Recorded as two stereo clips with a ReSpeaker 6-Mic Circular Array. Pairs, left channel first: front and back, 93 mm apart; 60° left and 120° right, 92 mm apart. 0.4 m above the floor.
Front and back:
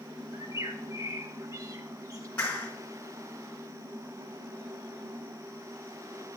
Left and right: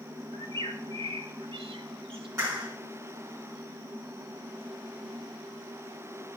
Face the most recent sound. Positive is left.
turn(degrees=-70)